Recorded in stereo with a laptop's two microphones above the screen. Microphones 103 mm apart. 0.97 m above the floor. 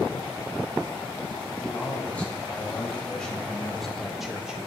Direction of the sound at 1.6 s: 15° left (ahead or behind).